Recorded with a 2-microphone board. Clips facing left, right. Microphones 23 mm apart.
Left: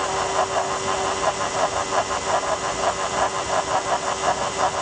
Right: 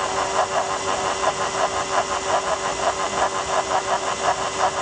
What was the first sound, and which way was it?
Only background noise.